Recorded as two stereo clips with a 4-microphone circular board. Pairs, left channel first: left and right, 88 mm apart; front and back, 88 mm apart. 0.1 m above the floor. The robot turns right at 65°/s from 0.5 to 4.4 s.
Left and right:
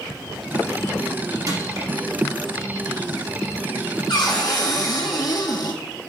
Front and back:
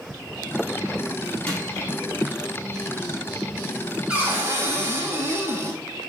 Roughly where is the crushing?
Right.